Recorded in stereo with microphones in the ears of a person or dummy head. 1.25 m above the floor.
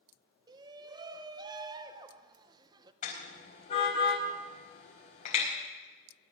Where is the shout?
20° right (ahead or behind), 1.0 m.